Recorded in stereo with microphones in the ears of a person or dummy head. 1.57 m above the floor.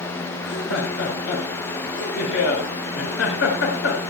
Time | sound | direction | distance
0.4 | laughter | 75° left (ahead or behind) | 6 m